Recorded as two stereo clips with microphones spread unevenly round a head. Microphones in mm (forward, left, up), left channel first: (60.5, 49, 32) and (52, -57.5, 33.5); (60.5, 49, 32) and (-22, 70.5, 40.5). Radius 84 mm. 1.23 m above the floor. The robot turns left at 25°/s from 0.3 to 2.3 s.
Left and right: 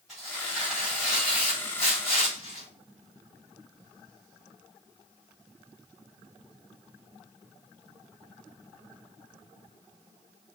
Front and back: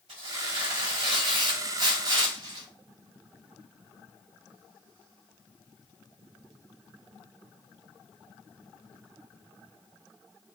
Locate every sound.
0.1 s tearing paper: straight behind, 3 m; by 2.7 s 130° left, 3 m